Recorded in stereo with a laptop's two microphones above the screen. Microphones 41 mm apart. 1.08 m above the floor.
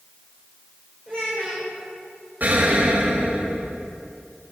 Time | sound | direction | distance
1.1 | a child speaking | 25° left (ahead or behind) | 3.5 m
2.4 | an explosion | 45° right (ahead or behind) | 2.5 m